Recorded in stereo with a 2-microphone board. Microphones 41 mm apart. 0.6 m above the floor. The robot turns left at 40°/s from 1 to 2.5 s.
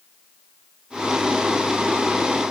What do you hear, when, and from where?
Only background noise.